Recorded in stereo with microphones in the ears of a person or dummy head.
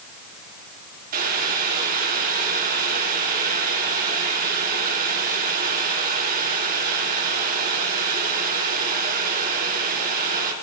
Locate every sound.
1.1 s boiling: 50° right (ahead or behind), 2.5 m